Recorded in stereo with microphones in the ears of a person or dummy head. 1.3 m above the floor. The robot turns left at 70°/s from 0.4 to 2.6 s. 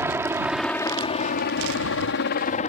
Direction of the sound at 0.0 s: 15° right (ahead or behind).